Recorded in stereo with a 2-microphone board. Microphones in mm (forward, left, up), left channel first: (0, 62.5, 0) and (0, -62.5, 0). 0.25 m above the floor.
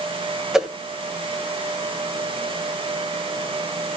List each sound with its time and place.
0.5 s a whoosh: 5° right (ahead or behind), 1.6 m